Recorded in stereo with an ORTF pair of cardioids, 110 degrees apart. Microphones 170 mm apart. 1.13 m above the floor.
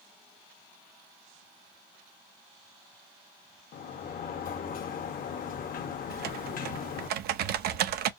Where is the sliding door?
55° left, 1.0 m.